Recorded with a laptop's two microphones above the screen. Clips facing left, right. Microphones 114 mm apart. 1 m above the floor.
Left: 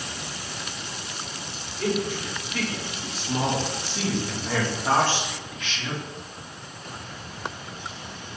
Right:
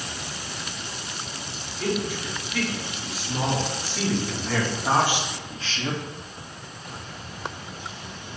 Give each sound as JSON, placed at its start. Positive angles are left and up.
{"t": 1.8, "sound": "a man speaking", "side_deg": 40, "distance_m": 2.0}